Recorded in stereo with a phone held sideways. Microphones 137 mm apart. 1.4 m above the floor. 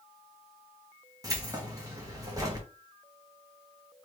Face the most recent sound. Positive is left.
turn(degrees=-25)  # may be behind; listen again after turning